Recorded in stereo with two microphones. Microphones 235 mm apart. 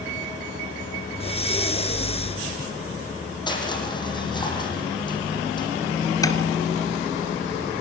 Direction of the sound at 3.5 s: 20° left (ahead or behind).